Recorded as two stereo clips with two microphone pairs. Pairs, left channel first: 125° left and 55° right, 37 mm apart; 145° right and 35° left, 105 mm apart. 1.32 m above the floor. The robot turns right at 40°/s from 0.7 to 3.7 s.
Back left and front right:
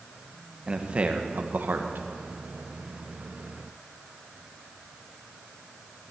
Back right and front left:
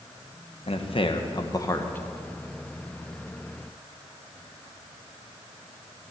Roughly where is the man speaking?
Behind right.